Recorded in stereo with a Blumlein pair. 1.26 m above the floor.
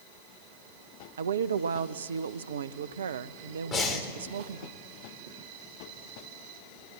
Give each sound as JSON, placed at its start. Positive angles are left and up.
{"t": 1.2, "sound": "a woman speaking", "azimuth_deg": -65, "distance_m": 0.7}
{"t": 3.7, "sound": "breathing", "azimuth_deg": 25, "distance_m": 3.5}